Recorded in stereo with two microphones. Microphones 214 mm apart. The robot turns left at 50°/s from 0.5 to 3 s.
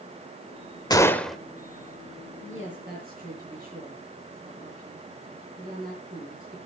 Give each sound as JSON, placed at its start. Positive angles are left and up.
{"t": 0.9, "sound": "a gunshot", "side_deg": 20, "distance_m": 0.9}
{"t": 2.4, "sound": "a woman speaking", "azimuth_deg": -105, "distance_m": 7.5}